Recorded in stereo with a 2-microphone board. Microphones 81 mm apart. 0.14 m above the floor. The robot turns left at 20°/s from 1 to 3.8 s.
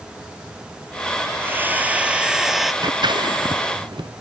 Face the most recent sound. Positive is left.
turn(degrees=-85)